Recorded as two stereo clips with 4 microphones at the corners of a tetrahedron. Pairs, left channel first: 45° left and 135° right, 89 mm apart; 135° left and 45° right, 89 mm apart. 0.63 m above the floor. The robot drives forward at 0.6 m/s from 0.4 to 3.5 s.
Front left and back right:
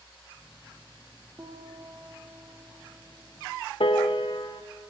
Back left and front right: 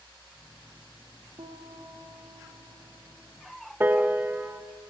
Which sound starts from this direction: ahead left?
A piano, at 3.8 s.